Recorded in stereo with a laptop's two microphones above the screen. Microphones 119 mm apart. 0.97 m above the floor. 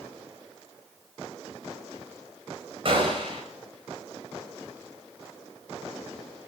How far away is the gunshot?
About 4.5 m.